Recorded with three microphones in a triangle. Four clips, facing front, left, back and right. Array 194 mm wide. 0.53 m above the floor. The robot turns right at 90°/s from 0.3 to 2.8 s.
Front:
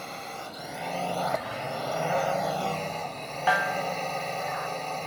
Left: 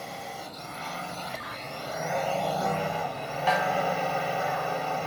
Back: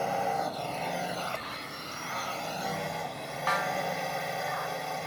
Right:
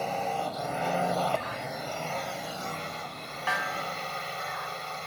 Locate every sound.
0.0 s a drone: 140° right; by 5.1 s 85° left
3.5 s a snare drum: 40° left